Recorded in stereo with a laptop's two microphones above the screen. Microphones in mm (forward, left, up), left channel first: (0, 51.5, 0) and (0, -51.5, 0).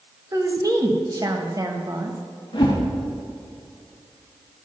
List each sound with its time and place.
0.3 s a woman speaking: 40° right (ahead or behind), 1.1 m
2.5 s a whoosh: 50° left (ahead or behind), 2.5 m